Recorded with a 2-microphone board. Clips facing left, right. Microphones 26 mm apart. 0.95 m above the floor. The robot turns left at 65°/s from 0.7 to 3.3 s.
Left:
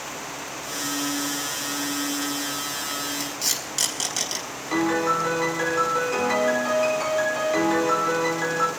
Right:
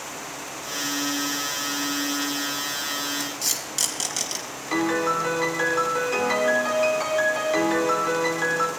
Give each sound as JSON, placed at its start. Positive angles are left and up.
{"t": 3.2, "sound": "tape being pulled", "side_deg": 10, "distance_m": 4.5}
{"t": 4.7, "sound": "a piano", "side_deg": -20, "distance_m": 3.0}